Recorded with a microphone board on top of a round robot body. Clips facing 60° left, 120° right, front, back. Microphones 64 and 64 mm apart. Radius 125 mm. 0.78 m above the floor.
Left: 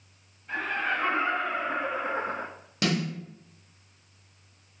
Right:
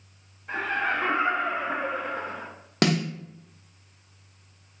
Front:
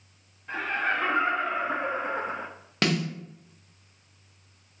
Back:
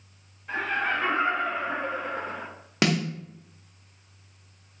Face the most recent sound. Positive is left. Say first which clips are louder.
# right 4 dB, back 2 dB
turn(degrees=-100)